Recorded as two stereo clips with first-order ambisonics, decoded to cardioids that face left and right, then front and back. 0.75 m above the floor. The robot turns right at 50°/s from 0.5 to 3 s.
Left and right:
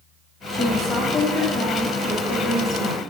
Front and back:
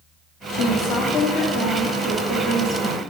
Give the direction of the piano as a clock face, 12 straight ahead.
I don't hear a piano.